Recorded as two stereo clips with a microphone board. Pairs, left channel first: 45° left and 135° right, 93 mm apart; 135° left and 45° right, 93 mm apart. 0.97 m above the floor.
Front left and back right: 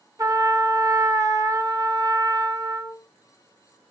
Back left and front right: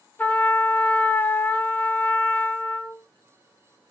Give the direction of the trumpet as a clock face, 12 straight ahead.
5 o'clock.